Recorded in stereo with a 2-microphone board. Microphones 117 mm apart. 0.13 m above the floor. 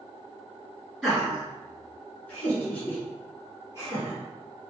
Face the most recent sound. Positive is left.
turn(degrees=30)  # may be behind; listen again after turning